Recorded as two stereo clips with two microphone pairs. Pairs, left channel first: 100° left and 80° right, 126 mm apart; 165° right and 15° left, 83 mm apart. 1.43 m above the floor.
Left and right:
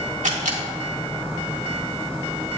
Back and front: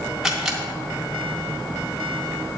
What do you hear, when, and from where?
0.2 s a camera shutter: 70° right, 1.9 m